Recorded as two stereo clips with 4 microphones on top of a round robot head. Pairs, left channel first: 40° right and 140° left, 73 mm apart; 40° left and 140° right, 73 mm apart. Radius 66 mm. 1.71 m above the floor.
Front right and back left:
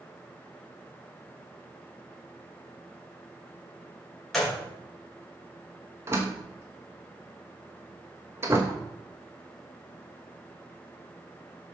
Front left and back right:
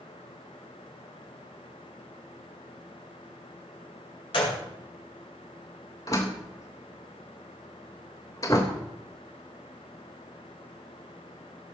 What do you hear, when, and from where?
4.3 s a gunshot: 45° left, 4.5 m
6.1 s a door slam: 85° left, 1.2 m